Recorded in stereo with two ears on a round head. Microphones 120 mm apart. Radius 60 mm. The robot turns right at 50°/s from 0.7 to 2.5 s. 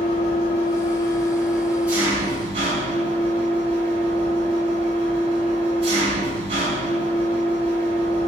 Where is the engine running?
130° left, 5 m; by 8.3 s 140° right, 5 m.